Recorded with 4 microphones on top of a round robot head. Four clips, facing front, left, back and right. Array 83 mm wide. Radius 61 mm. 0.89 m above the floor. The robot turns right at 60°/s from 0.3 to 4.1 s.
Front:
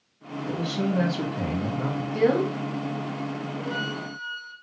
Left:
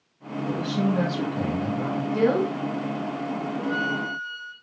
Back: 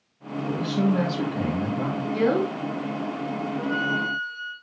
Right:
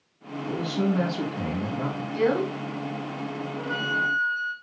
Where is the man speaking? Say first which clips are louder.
Left 1 dB, back 3 dB; 140° left, 1.5 m; by 2.0 s 125° right, 1.5 m.